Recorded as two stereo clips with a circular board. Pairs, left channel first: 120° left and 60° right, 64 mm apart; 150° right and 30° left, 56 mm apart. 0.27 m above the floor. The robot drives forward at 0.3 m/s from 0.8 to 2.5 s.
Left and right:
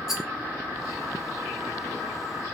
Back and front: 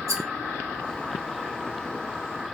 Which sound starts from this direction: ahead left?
A rattle, at 0.1 s.